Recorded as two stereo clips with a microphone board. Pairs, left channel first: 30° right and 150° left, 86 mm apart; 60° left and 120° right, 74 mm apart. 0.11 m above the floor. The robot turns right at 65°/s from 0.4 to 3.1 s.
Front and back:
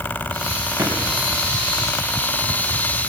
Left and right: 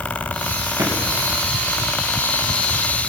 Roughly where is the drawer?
Behind right.